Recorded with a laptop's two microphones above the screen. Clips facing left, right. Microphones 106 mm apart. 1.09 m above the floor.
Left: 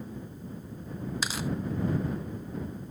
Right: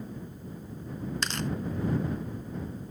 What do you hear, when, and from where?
1.2 s tearing paper: 5° left (ahead or behind)